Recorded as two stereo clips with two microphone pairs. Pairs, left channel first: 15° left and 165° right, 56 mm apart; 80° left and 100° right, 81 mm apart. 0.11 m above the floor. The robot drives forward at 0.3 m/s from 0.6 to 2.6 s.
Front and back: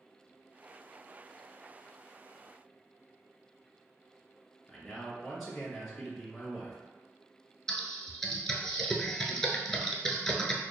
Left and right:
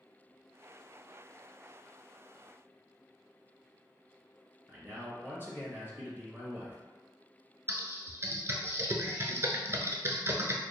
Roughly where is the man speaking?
Right.